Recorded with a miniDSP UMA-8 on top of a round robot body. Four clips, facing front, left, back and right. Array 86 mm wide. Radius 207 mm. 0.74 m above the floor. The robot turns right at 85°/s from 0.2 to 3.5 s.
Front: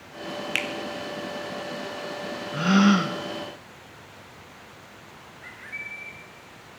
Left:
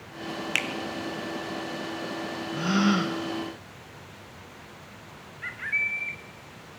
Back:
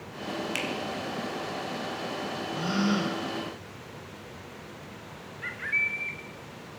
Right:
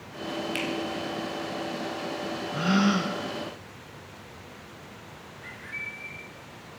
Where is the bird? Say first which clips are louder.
Left 9 dB, back 9 dB; 125° left, 0.7 m.